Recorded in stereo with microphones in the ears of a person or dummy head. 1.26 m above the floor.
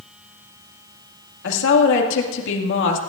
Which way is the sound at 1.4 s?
70° left (ahead or behind).